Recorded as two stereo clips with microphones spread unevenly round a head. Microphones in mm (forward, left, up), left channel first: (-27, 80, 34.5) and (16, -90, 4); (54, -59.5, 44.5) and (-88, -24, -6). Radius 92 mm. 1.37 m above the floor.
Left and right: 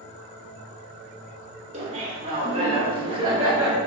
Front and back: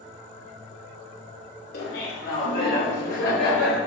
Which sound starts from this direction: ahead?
Laughter, at 1.7 s.